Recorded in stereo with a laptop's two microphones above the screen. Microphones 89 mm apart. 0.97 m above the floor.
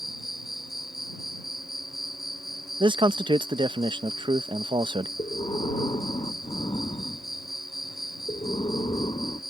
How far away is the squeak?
I don't hear a squeak.